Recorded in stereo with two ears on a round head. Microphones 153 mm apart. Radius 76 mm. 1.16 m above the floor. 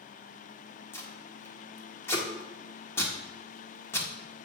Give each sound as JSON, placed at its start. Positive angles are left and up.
{"t": 0.9, "sound": "tape being pulled", "side_deg": 15, "distance_m": 1.6}